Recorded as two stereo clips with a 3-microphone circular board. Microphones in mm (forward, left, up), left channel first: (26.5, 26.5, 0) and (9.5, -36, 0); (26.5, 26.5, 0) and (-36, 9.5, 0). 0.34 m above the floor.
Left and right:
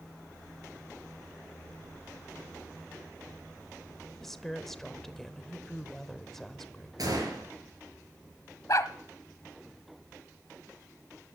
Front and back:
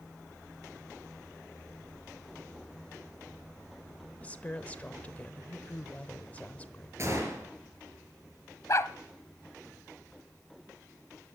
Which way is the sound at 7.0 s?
120° right.